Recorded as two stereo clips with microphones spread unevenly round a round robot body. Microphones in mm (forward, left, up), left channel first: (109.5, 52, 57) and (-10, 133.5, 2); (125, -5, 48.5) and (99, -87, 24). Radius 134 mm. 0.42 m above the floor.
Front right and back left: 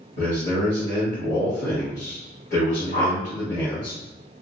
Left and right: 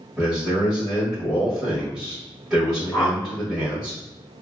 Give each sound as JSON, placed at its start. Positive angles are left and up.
{"t": 0.2, "sound": "a man speaking", "azimuth_deg": -35, "distance_m": 1.6}
{"t": 2.9, "sound": "a whoosh", "azimuth_deg": -5, "distance_m": 0.9}